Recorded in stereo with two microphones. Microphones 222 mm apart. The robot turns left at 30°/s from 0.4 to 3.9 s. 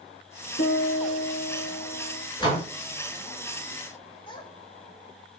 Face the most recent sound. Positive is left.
turn(degrees=25)  # may be behind; listen again after turning